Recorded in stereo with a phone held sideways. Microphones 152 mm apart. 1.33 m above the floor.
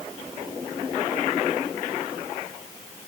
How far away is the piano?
No piano in this recording.